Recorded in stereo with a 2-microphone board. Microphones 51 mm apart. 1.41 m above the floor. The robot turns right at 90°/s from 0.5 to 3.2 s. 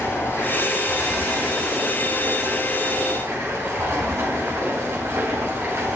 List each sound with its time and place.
0.0 s running water: 55° left, 6 m; by 6.0 s 65° right, 6 m